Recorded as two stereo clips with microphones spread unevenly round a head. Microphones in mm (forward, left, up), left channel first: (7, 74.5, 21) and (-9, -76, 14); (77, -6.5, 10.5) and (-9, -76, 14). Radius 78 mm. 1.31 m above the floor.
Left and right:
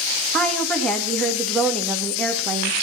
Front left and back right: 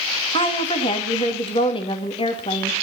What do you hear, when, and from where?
0.3 s a woman speaking: straight ahead, 2 m